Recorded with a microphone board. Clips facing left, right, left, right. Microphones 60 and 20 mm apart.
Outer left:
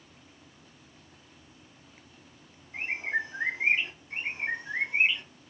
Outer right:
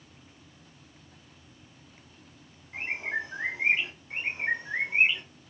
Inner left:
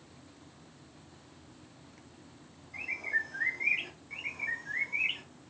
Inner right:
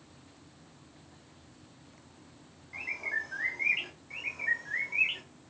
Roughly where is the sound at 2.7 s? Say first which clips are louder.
Outer left 1 dB, inner left 1 dB; right.